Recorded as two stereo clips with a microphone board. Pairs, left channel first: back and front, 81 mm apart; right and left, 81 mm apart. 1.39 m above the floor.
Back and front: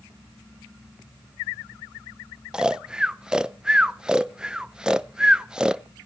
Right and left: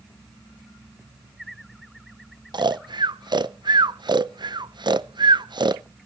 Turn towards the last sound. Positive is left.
turn(degrees=80)